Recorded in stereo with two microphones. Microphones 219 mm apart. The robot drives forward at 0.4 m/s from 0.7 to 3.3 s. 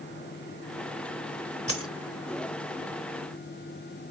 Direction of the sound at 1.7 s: 80° left.